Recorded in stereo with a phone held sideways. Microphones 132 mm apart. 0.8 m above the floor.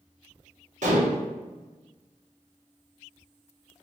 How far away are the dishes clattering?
About 1.0 m.